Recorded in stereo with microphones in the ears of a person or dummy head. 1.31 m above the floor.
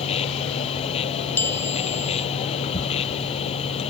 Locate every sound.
0.0 s a machine running: 35° left (ahead or behind)
1.4 s a bell: 10° left (ahead or behind)